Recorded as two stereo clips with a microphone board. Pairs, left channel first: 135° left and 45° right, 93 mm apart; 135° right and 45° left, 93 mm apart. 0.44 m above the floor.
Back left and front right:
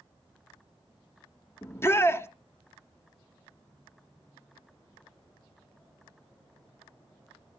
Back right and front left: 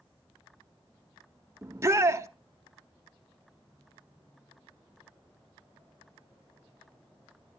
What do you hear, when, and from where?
1.6 s a shout: 90° left, 1.3 m